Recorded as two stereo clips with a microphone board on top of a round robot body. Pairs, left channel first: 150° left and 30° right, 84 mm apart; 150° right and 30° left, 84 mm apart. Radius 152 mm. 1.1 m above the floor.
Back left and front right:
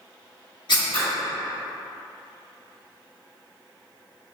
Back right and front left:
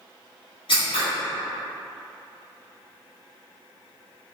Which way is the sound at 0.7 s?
175° right.